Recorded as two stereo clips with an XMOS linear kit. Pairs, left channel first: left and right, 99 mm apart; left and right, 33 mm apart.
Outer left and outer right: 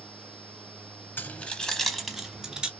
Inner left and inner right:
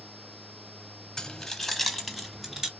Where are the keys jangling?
20° left (ahead or behind), 0.7 m; by 2.7 s 10° right (ahead or behind), 1.4 m.